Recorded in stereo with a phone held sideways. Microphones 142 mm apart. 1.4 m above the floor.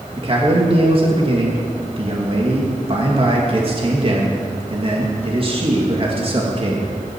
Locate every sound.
0.2 s a man speaking: 40° right (ahead or behind), 2.5 m